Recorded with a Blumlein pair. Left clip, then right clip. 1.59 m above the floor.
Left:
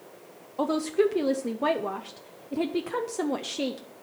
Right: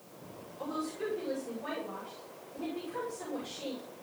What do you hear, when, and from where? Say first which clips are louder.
0.6 s a woman speaking: left 12 dB; 45° left, 0.8 m